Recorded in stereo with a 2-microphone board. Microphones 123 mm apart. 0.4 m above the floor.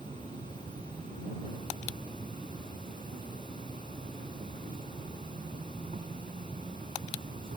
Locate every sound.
0.0 s an insect: 85° right